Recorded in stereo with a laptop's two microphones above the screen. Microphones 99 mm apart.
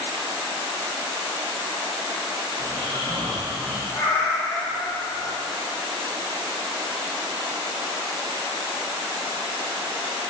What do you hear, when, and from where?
2.6 s snoring: 70° right (ahead or behind), 1.4 m
3.9 s a cat meowing: 30° left (ahead or behind), 2 m